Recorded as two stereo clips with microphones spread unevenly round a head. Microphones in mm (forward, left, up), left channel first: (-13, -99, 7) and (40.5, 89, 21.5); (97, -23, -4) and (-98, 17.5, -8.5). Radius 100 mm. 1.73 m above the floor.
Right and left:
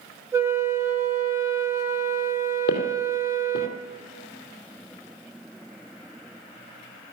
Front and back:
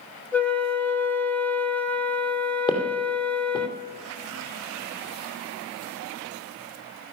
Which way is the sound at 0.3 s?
50° left.